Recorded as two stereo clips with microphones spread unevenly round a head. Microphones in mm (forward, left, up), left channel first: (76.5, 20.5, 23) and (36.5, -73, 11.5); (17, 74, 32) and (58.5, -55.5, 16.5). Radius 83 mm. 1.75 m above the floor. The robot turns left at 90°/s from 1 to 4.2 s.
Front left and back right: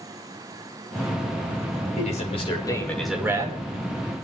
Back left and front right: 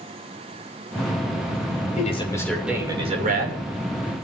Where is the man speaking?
75° left, 6.5 m; by 3.6 s 70° right, 6.5 m.